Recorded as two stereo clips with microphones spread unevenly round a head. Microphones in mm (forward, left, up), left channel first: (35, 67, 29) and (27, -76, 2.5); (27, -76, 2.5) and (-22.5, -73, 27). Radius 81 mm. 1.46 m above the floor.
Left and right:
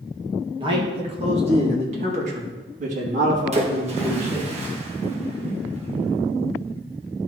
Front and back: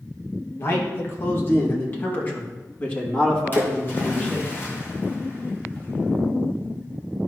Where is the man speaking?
40° right, 2.5 m; by 4.5 s 70° right, 4 m.